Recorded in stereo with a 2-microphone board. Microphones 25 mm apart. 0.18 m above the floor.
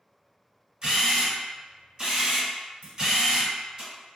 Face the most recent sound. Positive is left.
turn(degrees=-70)  # may be behind; listen again after turning